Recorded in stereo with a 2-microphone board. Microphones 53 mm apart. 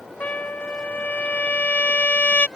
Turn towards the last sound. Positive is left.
turn(degrees=35)  # may be behind; listen again after turning